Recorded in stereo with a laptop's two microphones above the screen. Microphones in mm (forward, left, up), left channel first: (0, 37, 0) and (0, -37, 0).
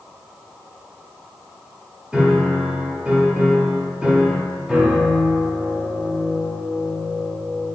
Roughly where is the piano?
Centre.